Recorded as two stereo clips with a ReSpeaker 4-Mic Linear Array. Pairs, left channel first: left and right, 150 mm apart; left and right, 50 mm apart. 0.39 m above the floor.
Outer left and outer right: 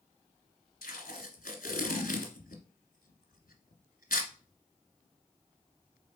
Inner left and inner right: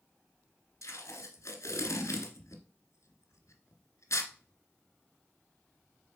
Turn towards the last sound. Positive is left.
turn(degrees=80)